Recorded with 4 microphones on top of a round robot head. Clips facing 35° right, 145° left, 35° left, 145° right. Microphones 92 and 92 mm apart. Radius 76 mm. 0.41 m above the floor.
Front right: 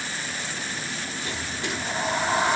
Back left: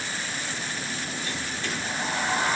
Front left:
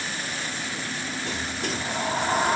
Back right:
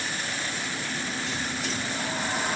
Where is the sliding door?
35° left, 1.5 m.